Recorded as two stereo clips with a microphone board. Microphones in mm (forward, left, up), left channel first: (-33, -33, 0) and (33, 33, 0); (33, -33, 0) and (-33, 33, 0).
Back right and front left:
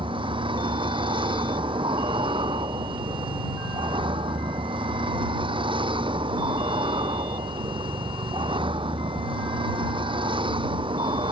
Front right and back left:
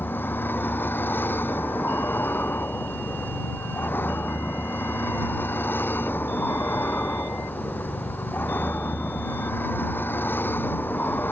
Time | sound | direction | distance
0.0 | a vehicle | 25° left | ?